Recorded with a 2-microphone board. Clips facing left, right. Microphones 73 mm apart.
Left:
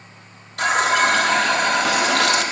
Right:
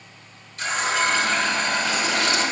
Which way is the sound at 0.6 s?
70° left (ahead or behind).